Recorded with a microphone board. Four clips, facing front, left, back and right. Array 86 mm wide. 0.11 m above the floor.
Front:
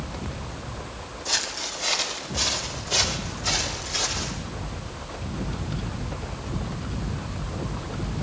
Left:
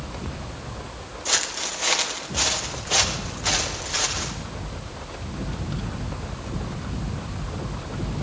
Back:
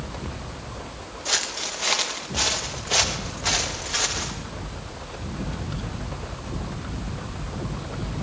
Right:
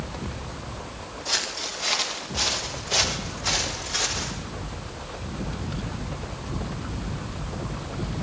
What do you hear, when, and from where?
1.2 s footsteps: 130° left, 3 m; by 4.3 s 145° left, 5 m